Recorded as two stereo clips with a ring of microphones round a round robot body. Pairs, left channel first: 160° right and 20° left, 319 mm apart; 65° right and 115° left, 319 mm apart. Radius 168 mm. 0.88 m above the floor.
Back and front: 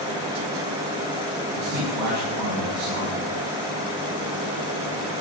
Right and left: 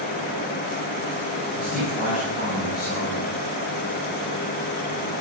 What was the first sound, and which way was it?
A man speaking, 15° right.